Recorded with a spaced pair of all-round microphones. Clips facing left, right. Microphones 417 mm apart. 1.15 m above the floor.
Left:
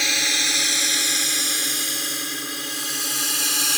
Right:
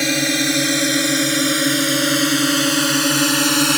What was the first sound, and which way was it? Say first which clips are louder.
A drone: right 14 dB; 65° right (ahead or behind).